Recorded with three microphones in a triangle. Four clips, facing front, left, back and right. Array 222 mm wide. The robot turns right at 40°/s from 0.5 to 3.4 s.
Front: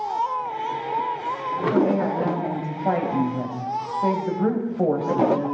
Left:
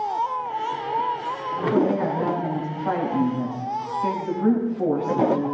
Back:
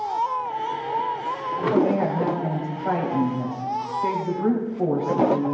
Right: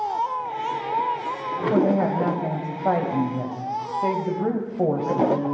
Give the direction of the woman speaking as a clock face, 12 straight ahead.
4 o'clock.